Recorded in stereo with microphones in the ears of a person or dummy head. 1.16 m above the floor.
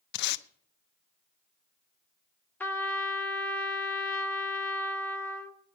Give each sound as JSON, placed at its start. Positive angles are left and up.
{"t": 0.1, "sound": "tape being pulled", "side_deg": 50, "distance_m": 0.5}
{"t": 2.6, "sound": "a trumpet", "side_deg": 5, "distance_m": 1.4}